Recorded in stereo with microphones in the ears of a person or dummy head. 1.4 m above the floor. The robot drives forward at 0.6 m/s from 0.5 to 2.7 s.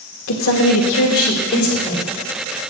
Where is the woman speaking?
70° left (ahead or behind), 1.7 m; by 2.1 s 45° left (ahead or behind), 2 m.